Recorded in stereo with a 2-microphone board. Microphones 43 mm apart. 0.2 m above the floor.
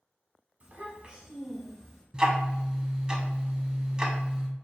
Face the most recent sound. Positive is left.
turn(degrees=-20)  # may be behind; listen again after turning